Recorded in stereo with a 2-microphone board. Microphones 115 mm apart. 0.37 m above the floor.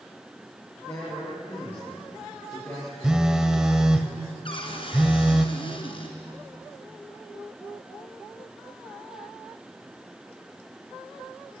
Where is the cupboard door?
50° left (ahead or behind), 2.5 m.